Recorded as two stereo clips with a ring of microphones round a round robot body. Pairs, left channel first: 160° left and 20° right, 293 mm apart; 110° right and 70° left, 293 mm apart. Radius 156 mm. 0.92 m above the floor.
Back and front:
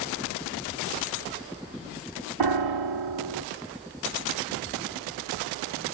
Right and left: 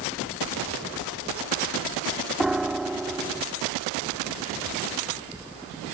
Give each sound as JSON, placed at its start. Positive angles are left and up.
{"t": 2.4, "sound": "a piano", "azimuth_deg": -20}